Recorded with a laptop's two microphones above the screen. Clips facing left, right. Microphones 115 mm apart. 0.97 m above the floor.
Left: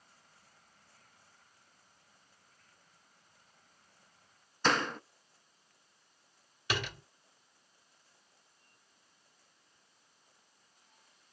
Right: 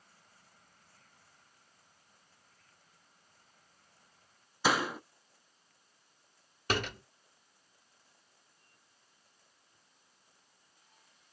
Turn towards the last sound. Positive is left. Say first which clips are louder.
# right 3 dB
turn(degrees=-45)  # may be behind; listen again after turning